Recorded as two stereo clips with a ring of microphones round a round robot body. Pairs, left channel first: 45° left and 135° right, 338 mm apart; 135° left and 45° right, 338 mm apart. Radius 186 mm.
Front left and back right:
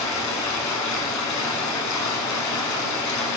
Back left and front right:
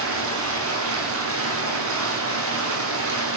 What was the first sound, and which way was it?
Running water, 5° left.